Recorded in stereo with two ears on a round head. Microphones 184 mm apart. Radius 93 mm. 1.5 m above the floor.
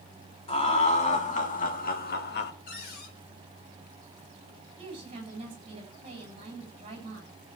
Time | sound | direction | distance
0.5 | laughter | 30° left (ahead or behind) | 3 m
2.7 | a cupboard door | 45° left (ahead or behind) | 4 m
4.8 | a woman speaking | 25° right (ahead or behind) | 7.5 m